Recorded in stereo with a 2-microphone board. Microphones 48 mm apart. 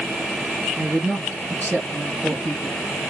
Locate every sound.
0.8 s a woman speaking: 35° right (ahead or behind), 2.5 m